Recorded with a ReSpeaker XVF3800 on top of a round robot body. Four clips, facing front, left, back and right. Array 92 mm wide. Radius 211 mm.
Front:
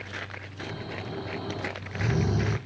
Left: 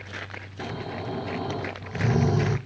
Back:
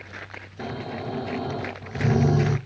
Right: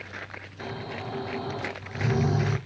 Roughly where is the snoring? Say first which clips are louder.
Left 2 dB, back 5 dB; behind left.